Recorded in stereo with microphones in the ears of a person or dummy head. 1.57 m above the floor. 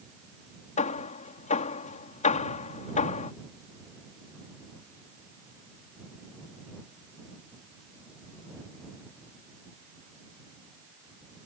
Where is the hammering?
35° left (ahead or behind).